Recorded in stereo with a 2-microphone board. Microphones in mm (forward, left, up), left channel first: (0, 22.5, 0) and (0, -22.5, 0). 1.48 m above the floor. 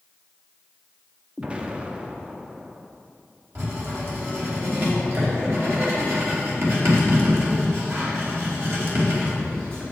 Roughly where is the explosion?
Right.